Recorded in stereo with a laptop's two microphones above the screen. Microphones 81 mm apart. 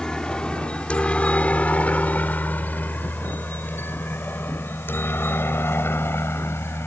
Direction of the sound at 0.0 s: 10° left (ahead or behind).